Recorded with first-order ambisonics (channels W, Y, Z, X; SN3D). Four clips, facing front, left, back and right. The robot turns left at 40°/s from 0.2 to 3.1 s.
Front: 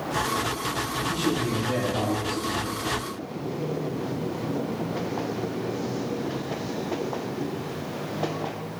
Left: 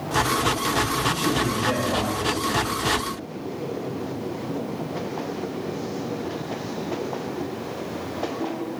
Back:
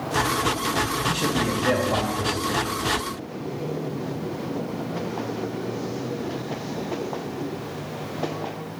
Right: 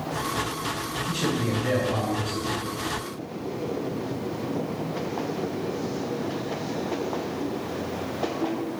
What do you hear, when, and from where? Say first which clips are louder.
1.1 s a man speaking: left 3 dB, back 2 dB; 160° right, 2.5 m; by 2.6 s 135° left, 2.5 m